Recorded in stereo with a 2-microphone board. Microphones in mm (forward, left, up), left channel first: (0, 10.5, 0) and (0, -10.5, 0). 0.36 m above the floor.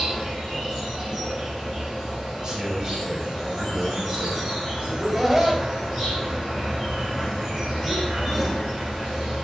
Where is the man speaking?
35° right (ahead or behind), 1.4 m.